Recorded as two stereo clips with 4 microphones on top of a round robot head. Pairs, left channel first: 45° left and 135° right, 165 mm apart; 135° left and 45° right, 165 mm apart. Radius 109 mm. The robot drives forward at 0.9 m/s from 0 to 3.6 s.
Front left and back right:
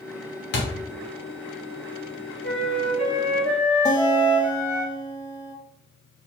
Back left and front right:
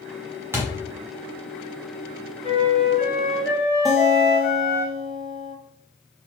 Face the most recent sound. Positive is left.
turn(degrees=50)